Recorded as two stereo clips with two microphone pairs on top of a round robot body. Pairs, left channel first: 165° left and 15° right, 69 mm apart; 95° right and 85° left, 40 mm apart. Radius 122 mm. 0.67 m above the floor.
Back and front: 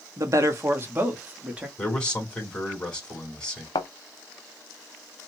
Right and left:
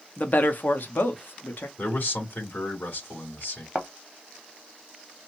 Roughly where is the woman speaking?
Ahead right.